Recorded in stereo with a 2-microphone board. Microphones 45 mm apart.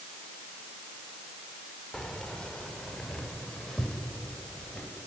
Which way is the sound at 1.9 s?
15° left (ahead or behind).